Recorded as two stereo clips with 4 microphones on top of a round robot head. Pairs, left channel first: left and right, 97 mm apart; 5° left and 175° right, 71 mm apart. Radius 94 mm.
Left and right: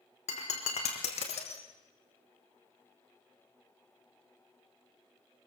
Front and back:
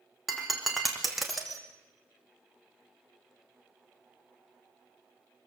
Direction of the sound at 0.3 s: 100° left.